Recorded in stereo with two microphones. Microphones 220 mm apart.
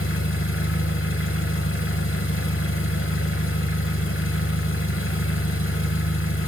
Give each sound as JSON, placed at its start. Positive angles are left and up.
{"t": 0.0, "sound": "an engine running", "side_deg": 70, "distance_m": 1.0}